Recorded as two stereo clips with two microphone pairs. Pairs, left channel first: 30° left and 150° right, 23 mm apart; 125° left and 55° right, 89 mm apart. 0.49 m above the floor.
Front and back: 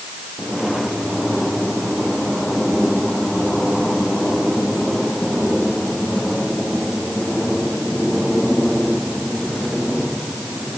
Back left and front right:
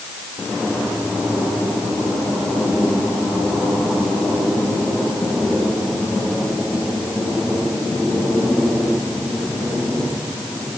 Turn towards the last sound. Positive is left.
No sound to turn to.